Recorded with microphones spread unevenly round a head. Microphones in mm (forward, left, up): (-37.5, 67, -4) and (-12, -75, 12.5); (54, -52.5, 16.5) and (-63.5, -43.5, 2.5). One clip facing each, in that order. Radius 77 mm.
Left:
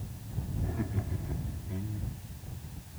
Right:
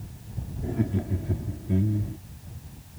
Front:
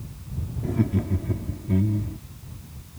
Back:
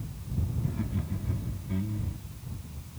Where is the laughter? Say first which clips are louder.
Right 10 dB, front 14 dB; 25° right; by 2.2 s 50° right.